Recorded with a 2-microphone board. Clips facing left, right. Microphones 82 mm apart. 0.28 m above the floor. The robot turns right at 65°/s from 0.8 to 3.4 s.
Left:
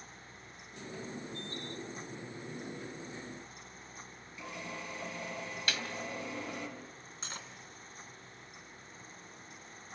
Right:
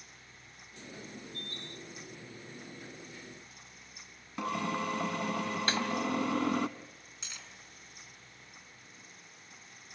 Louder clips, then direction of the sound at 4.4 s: Right 10 dB; 75° right (ahead or behind).